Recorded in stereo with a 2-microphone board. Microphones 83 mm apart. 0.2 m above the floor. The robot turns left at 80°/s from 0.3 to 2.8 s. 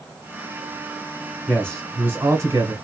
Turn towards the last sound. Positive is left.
turn(degrees=-135)